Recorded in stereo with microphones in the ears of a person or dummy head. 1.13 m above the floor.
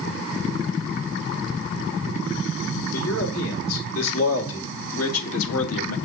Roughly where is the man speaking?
Left.